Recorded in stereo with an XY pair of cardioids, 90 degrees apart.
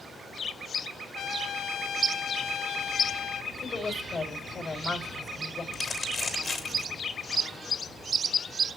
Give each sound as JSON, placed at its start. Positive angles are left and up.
{"t": 1.1, "sound": "a trumpet", "azimuth_deg": 70, "distance_m": 0.7}
{"t": 3.6, "sound": "a woman speaking", "azimuth_deg": 45, "distance_m": 3.0}
{"t": 5.7, "sound": "crumpling", "azimuth_deg": 50, "distance_m": 3.0}